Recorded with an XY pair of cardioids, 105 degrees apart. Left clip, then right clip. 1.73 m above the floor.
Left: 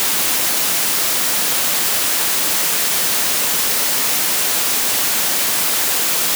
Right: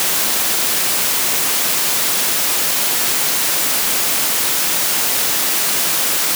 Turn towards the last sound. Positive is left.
No sound to turn to.